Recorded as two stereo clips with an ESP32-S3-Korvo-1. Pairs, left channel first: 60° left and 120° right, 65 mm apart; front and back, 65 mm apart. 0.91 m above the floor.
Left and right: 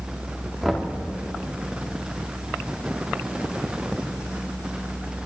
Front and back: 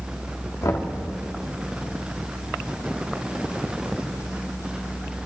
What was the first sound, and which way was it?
Knocking, 25° right.